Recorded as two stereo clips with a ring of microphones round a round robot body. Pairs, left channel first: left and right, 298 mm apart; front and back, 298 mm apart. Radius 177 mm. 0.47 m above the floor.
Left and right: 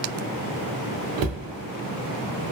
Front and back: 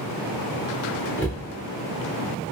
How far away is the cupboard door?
About 0.5 m.